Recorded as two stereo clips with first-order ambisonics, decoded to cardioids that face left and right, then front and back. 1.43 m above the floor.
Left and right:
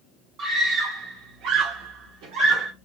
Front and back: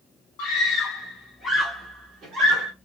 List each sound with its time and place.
0.4 s a scream: 25° right, 2 m; by 2.7 s 140° right, 1.7 m